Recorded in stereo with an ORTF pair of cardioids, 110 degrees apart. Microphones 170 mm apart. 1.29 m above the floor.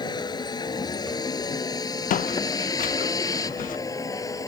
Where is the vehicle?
25° left; by 4.5 s 20° left.